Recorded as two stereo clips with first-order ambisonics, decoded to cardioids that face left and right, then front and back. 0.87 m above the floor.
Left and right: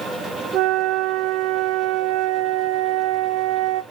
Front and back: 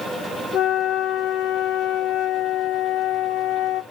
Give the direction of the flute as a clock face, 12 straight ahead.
2 o'clock.